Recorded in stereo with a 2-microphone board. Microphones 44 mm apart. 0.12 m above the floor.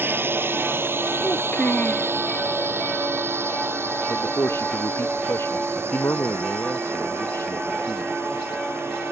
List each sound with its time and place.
0.0 s a drone: 55° right (ahead or behind); by 9.1 s 70° right (ahead or behind)
1.2 s a child speaking: 35° left (ahead or behind)
4.1 s a man speaking: 75° left (ahead or behind)